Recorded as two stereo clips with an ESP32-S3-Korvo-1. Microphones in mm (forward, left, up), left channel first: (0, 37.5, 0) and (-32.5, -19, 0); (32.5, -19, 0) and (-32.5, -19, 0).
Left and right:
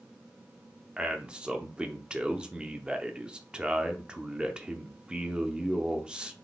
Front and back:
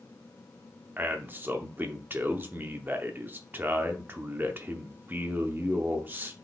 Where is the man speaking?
Straight behind, 0.7 m.